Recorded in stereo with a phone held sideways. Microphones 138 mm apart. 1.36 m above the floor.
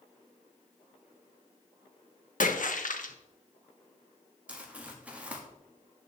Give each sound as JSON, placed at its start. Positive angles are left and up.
{"t": 2.4, "sound": "a splash", "side_deg": 70, "distance_m": 0.9}
{"t": 4.5, "sound": "crumpling", "side_deg": -10, "distance_m": 1.3}